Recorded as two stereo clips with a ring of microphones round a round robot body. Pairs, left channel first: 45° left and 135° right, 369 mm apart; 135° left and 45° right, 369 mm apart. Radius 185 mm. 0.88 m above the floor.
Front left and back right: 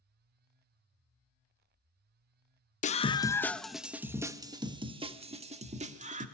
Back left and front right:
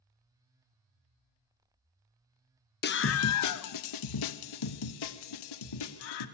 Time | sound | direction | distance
2.8 | a scream | 100° left | 0.7 m